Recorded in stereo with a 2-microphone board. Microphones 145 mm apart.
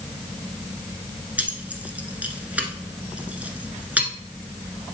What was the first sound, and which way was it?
Keys jangling, 10° right (ahead or behind).